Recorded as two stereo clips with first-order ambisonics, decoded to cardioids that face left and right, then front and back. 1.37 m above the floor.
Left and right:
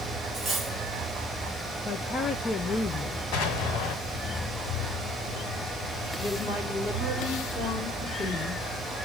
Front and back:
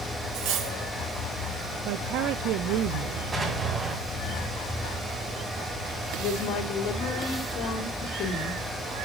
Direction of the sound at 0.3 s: 165° right.